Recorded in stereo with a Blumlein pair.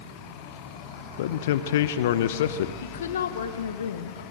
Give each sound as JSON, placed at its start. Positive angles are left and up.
{"t": 1.2, "sound": "a man speaking", "azimuth_deg": 55, "distance_m": 0.7}
{"t": 2.8, "sound": "a woman speaking", "azimuth_deg": 65, "distance_m": 1.2}